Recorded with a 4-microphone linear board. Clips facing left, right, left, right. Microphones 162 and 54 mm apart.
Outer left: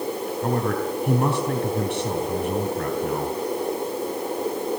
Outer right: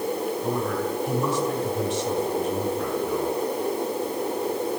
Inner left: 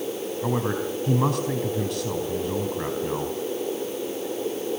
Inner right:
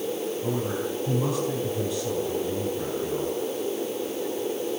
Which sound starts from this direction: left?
A man speaking, at 0.4 s.